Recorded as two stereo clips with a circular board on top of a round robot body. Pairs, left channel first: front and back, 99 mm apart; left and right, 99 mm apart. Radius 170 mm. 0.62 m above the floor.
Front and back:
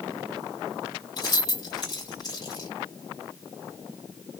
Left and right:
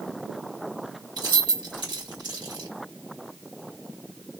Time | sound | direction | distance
1.2 | keys jangling | 50° right | 1.9 m